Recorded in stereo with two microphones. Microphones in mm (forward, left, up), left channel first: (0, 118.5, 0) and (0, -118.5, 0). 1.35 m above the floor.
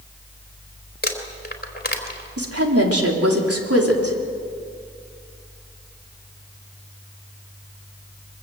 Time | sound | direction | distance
1.0 | crumpling | 40° left (ahead or behind) | 3 m
2.4 | a woman speaking | 80° right | 3.5 m